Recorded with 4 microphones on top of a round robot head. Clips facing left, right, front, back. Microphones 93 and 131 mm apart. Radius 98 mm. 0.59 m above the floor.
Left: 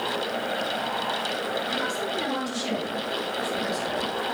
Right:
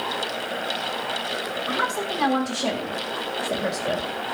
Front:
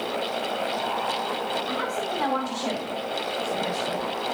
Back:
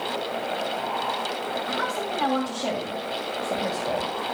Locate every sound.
1.7 s a woman speaking: 95° right, 4.5 m; by 4.1 s 115° right, 2.5 m